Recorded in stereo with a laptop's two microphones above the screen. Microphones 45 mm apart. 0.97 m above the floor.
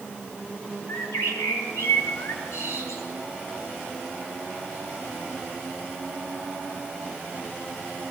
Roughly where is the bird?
Left.